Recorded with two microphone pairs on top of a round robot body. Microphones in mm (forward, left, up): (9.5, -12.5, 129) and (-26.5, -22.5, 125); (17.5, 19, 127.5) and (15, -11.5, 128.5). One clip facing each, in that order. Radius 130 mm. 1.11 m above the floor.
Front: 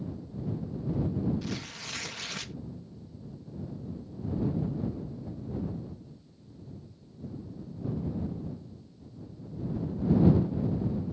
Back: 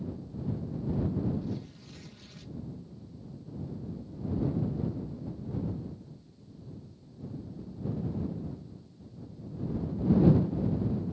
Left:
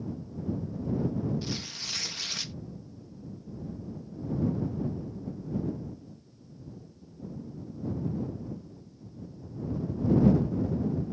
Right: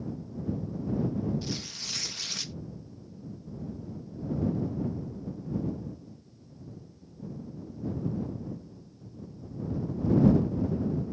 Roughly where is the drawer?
I don't hear a drawer.